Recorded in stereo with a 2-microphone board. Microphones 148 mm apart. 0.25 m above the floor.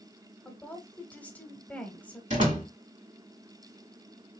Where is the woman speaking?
10° left (ahead or behind), 1.1 m.